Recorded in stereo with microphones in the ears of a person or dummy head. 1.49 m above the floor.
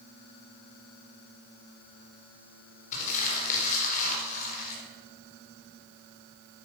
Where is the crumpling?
45° left (ahead or behind), 5 m.